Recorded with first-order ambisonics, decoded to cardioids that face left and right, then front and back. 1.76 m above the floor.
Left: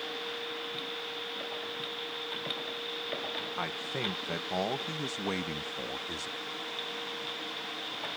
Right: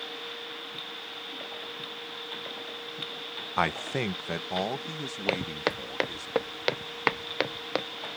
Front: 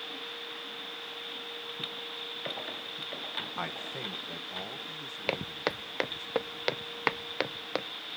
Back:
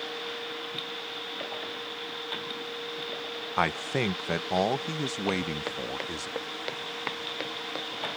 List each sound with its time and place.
3.6 s a man speaking: 130° right; by 6.3 s 165° left
5.3 s footsteps: 70° right